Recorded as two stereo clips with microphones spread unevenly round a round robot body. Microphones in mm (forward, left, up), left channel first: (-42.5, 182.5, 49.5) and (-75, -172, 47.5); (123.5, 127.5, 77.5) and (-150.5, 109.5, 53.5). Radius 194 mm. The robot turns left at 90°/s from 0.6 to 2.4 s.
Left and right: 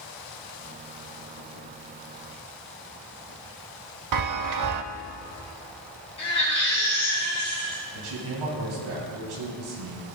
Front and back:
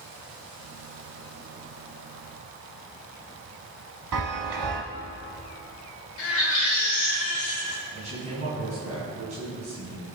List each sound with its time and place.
4.1 s a chime: 130° right, 0.6 m
6.2 s a baby crying: 10° left, 3.5 m
7.9 s a man speaking: 110° right, 3.5 m